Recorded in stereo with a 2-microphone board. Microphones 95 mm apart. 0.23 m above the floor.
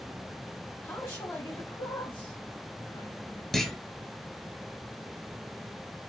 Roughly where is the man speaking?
Left.